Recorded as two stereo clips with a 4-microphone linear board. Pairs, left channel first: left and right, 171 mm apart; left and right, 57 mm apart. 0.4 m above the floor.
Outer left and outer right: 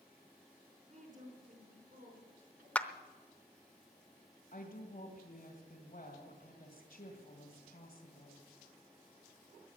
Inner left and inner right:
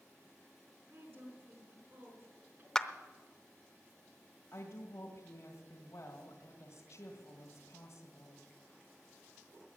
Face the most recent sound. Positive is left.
turn(degrees=50)  # may be behind; listen again after turning